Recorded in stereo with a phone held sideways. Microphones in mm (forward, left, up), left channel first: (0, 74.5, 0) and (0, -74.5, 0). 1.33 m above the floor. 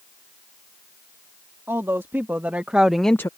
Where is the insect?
I don't hear an insect.